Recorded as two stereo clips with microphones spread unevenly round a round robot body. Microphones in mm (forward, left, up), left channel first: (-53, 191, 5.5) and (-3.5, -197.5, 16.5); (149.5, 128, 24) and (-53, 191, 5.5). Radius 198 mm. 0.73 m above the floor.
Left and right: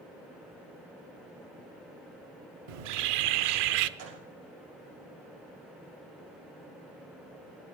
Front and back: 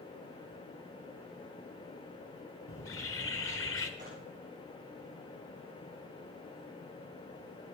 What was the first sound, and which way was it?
A bird, 70° right.